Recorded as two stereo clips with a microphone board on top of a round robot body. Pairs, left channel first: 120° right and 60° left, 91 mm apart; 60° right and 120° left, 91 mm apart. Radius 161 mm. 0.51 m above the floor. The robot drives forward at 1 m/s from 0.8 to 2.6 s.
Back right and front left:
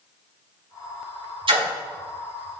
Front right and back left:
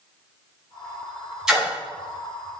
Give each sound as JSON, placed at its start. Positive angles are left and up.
{"t": 1.5, "sound": "a splash", "azimuth_deg": 35, "distance_m": 6.5}